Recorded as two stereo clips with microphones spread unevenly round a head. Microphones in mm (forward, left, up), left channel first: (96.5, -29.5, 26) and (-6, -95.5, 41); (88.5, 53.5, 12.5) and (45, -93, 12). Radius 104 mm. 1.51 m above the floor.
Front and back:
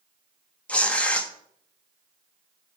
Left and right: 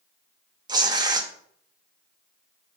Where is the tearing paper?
50° right, 1.1 m.